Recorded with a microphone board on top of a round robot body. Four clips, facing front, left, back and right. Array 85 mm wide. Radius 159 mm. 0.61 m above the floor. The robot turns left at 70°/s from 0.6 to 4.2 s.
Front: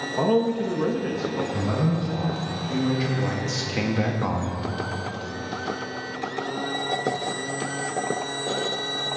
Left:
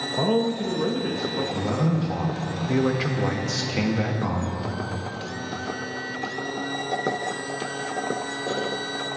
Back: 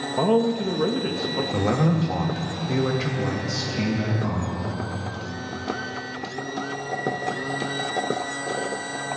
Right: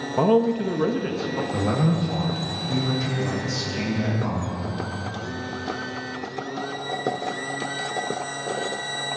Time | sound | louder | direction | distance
0.2 | a man speaking | right 4 dB, back 1 dB | 105° right | 0.9 m
1.5 | a man speaking | right 4 dB, back 3 dB | 155° right | 1.8 m